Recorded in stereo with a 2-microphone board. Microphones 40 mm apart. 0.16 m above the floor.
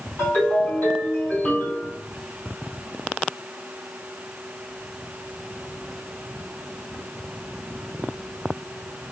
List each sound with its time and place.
0.2 s a ringtone: 50° left (ahead or behind), 3 m